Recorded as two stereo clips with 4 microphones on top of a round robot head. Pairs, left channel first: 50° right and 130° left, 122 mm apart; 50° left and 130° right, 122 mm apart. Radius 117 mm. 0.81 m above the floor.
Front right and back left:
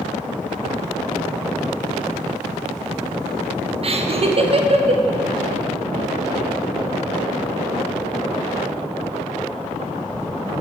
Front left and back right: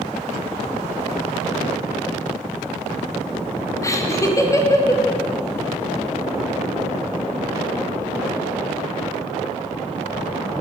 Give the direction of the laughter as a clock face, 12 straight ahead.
8 o'clock.